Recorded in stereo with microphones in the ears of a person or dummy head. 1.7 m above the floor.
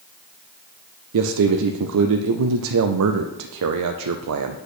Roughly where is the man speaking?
Right.